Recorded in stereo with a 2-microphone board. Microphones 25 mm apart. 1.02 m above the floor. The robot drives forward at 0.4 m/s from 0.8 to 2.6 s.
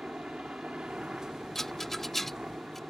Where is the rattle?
15° left (ahead or behind); by 2.8 s 10° left (ahead or behind).